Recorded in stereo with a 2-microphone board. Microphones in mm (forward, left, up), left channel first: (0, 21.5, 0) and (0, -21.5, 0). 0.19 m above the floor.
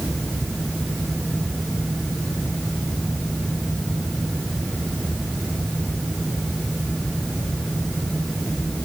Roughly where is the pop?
I don't hear a pop.